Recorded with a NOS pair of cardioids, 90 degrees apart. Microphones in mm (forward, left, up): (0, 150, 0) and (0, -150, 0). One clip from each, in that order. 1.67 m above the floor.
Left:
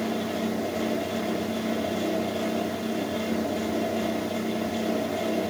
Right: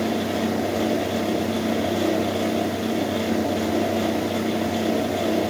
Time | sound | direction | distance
0.0 | a fan | 30° right | 0.8 m